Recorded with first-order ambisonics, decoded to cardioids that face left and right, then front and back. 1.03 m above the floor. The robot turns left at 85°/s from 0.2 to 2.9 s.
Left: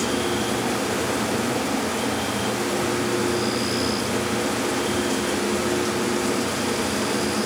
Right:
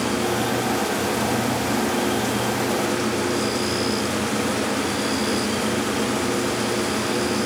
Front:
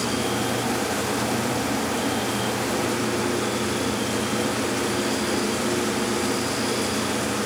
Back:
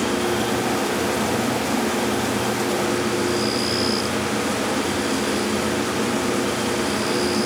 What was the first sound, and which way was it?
Only background noise.